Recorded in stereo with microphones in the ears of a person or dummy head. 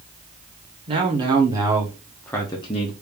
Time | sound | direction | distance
0.9 | a man speaking | 30° right (ahead or behind) | 1.5 m